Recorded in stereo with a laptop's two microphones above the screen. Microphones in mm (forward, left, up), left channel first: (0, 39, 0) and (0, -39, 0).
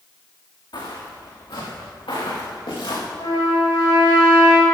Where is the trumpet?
80° left, 7 m.